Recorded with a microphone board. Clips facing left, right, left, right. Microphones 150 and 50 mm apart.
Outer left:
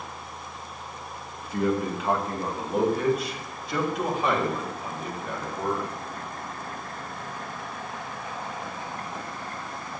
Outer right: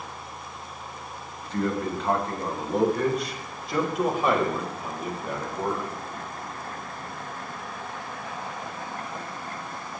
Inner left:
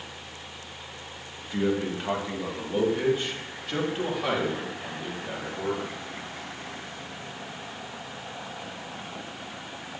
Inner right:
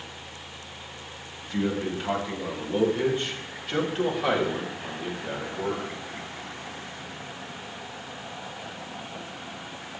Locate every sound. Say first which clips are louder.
1.4 s a man speaking: outer left 2 dB, inner left 1 dB; 10° left (ahead or behind), 2.5 m; by 5.9 s 5° right (ahead or behind), 4.5 m